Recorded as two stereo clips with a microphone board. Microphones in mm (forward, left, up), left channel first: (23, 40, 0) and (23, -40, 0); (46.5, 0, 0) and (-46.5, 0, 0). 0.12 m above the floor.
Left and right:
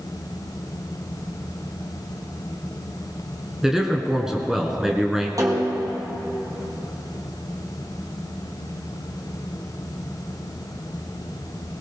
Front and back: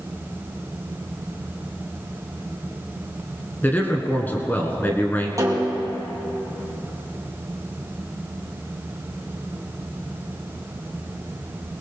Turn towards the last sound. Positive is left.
turn(degrees=-130)